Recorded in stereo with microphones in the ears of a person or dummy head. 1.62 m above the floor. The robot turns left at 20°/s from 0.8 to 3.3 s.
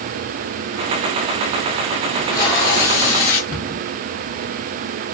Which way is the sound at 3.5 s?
15° left (ahead or behind).